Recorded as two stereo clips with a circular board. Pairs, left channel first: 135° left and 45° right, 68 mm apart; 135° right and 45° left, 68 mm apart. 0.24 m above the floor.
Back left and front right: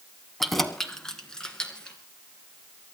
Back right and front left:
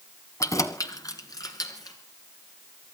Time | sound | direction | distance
0.4 | keys jangling | 140° right | 1.3 m